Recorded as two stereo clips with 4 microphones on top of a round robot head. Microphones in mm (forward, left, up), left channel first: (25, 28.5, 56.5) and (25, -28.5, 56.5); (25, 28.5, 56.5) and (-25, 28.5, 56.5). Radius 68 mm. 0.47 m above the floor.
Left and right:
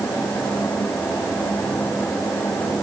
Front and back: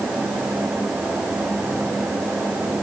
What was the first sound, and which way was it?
Only background noise.